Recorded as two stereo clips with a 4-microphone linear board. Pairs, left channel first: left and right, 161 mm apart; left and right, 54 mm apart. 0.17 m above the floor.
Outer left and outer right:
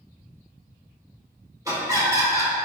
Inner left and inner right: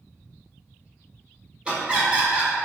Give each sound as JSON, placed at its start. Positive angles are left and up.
{"t": 1.6, "sound": "laughter", "side_deg": -20, "distance_m": 1.0}